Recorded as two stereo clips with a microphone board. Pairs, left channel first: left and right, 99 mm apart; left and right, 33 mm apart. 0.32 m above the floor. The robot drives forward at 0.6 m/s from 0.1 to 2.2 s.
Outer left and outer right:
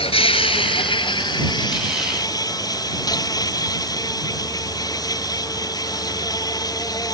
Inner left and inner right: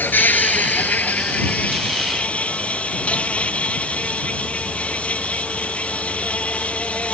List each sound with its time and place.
0.0 s an insect: 75° left (ahead or behind); by 7.1 s 40° left (ahead or behind)